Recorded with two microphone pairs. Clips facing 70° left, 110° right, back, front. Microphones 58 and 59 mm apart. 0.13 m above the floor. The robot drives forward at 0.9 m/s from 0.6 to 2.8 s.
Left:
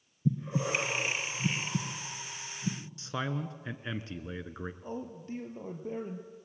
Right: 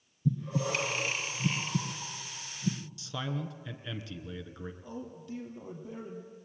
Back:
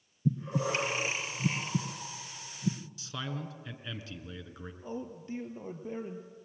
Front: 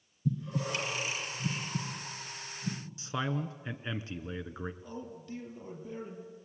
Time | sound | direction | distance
0.2 | breathing | 130° left | 2 m
3.0 | a man speaking | 40° left | 1.9 m
4.8 | a man speaking | 120° left | 3 m